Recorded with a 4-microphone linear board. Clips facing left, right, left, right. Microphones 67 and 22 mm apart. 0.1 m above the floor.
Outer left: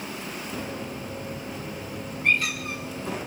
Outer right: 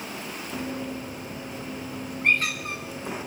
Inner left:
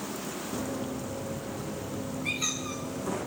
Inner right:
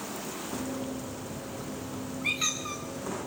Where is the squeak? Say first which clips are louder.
Even, inner right 3 dB; 40° right (ahead or behind), 9 m.